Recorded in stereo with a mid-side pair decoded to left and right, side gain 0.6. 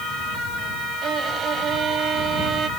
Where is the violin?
45° right.